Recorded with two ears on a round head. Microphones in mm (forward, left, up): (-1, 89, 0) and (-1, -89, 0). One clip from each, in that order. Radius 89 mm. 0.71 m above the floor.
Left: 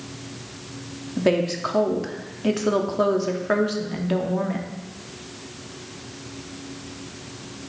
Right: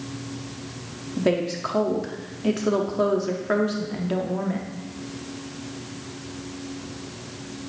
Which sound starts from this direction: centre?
A woman speaking, at 1.2 s.